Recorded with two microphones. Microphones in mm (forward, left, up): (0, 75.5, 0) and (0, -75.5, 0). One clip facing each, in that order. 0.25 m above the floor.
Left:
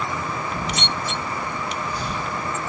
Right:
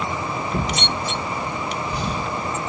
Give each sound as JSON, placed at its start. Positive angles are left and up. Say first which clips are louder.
{"t": 0.5, "sound": "a drawer", "louder": "right 3 dB", "side_deg": -75, "distance_m": 8.5}